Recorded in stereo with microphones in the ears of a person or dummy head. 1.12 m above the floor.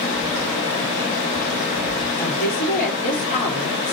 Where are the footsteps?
40° left (ahead or behind), 1.4 m.